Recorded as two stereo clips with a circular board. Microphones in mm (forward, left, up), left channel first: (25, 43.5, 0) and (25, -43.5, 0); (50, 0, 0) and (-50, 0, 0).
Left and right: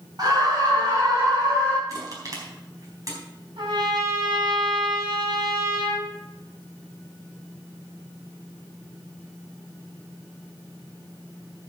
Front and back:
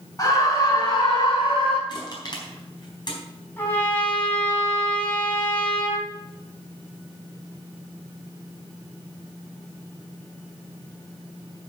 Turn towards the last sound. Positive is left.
turn(degrees=-70)